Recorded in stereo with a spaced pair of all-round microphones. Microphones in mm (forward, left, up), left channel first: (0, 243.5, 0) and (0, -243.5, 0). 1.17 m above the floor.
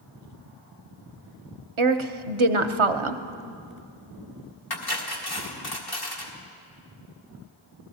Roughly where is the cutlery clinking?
Left.